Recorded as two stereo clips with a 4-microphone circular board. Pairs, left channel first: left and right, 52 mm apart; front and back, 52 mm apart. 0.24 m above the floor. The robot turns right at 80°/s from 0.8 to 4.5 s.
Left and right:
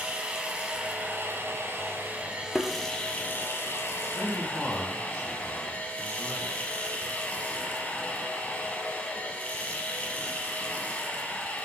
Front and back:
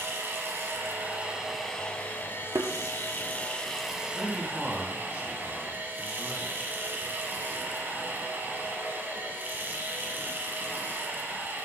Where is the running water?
150° right, 1.2 m; by 11.7 s 145° left, 1.2 m.